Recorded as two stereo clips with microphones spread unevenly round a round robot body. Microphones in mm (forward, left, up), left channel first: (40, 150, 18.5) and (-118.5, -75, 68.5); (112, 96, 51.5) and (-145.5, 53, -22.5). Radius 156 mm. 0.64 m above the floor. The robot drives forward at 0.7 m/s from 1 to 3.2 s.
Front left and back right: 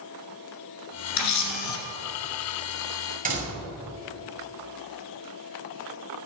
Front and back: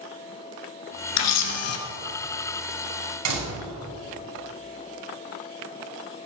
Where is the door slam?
175° left, 3.5 m.